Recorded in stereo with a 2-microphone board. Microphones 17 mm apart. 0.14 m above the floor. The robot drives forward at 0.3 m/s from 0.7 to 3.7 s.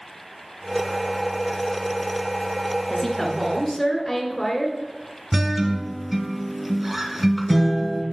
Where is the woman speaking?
15° left (ahead or behind), 1.7 m.